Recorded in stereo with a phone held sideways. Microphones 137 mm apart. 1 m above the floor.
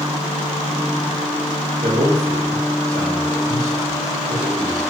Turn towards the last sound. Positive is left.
turn(degrees=-75)  # may be behind; listen again after turning